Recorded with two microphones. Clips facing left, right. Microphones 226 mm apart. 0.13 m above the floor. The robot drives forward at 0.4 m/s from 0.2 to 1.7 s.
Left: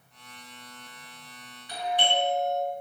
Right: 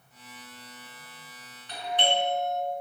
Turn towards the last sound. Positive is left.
turn(degrees=10)  # may be behind; listen again after turning